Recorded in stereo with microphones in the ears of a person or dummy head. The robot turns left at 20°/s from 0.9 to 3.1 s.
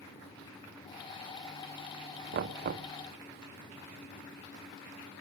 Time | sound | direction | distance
2.3 | knocking | 40° right (ahead or behind) | 0.8 m